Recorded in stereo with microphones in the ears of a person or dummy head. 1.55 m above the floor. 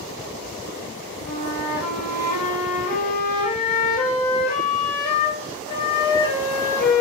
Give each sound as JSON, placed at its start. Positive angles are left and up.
{"t": 1.2, "sound": "a flute", "side_deg": 50, "distance_m": 1.1}